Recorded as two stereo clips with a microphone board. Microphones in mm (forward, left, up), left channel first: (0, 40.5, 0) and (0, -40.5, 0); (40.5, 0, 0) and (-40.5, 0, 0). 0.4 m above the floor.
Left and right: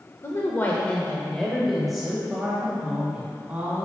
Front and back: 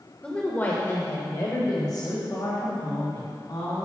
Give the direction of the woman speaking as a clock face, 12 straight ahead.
10 o'clock.